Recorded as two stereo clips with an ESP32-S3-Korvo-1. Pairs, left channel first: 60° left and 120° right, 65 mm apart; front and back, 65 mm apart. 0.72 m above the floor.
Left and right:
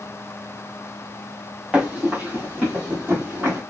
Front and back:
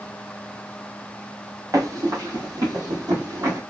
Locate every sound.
1.7 s running footsteps: 170° left, 1.2 m; by 3.6 s 175° right, 3 m